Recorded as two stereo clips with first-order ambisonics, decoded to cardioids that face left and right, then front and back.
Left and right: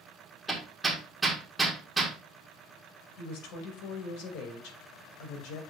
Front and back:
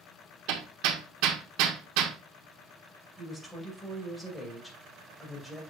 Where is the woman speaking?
85° left, 2.5 m.